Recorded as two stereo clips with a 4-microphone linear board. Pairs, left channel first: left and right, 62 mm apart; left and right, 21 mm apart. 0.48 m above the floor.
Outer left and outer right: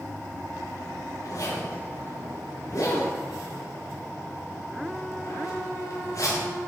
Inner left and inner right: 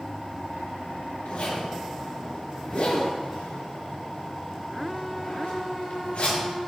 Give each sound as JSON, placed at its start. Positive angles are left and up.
{"t": 1.2, "sound": "a zipper", "side_deg": 50, "distance_m": 4.0}